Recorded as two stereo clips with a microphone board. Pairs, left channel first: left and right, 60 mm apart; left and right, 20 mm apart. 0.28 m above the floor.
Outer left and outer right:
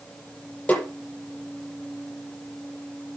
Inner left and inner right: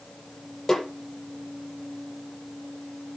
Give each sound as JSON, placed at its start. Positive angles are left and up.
{"t": 0.7, "sound": "a snare drum", "side_deg": 25, "distance_m": 9.0}